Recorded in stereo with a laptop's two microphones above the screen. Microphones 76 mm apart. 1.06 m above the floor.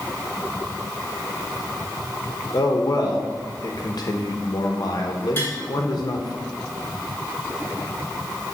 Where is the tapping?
30° left (ahead or behind), 3 m.